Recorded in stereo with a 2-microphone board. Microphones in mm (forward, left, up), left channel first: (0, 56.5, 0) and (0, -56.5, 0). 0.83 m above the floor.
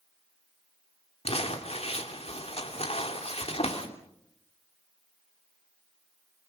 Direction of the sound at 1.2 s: 65° left (ahead or behind).